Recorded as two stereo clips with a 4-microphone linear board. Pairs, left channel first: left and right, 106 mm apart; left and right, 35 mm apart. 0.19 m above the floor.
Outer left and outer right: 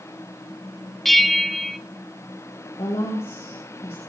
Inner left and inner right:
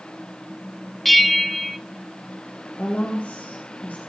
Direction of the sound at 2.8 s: 65° left (ahead or behind).